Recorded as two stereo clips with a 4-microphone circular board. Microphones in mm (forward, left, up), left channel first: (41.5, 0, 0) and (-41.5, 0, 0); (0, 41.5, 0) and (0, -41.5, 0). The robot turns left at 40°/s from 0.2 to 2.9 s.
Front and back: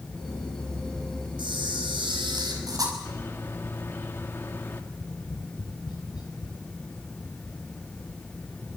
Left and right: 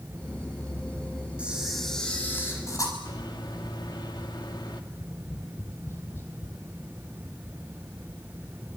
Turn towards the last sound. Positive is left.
turn(degrees=35)